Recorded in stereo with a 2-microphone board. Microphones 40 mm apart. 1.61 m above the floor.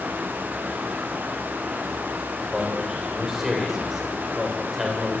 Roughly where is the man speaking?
Centre.